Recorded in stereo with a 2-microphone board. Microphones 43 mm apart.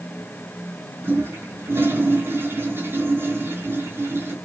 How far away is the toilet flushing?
About 4 m.